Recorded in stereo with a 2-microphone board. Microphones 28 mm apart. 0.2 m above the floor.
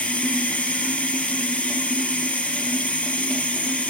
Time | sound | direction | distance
0.0 | running water | 55° left (ahead or behind) | 4.5 m